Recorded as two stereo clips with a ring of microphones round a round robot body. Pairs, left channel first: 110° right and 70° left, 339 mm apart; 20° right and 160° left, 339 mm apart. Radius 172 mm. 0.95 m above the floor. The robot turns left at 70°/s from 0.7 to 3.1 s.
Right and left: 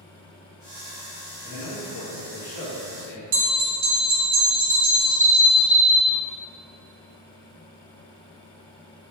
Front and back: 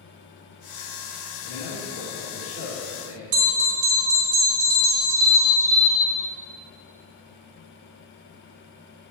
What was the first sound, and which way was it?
A man speaking, 45° right.